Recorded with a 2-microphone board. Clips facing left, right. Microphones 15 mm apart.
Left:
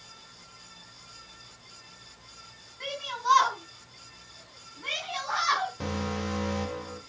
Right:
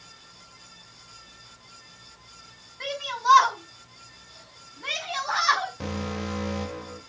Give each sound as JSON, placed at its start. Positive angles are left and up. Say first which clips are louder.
{"t": 2.8, "sound": "a shout", "louder": "right 4 dB", "side_deg": -25, "distance_m": 3.0}
{"t": 5.8, "sound": "an alarm", "louder": "even", "side_deg": -5, "distance_m": 2.5}